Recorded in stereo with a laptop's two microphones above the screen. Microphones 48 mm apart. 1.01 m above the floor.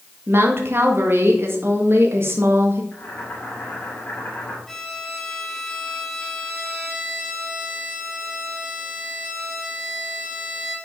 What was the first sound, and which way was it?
A woman speaking, 55° right (ahead or behind).